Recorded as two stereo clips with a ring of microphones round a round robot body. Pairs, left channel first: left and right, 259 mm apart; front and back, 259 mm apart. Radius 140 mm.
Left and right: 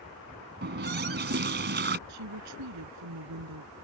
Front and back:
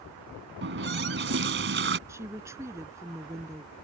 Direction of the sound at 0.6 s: 135° right.